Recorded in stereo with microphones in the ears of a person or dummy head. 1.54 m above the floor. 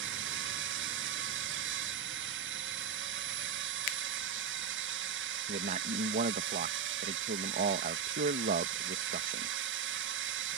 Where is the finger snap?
40° left (ahead or behind).